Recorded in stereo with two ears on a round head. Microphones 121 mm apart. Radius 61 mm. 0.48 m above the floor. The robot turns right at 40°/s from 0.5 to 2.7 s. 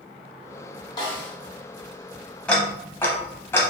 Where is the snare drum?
30° left (ahead or behind), 1.0 m; by 1.4 s 40° left (ahead or behind), 1.0 m.